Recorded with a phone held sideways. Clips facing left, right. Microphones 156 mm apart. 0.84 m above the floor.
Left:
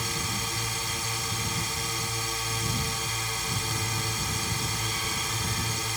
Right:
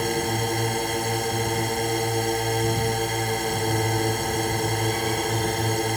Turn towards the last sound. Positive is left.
turn(degrees=-60)  # may be behind; listen again after turning